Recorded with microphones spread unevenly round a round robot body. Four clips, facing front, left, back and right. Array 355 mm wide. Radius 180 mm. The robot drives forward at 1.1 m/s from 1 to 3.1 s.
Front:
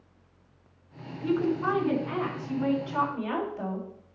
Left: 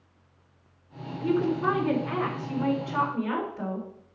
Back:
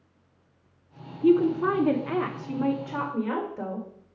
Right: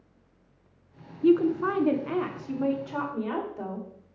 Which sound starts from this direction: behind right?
A woman speaking, at 1.2 s.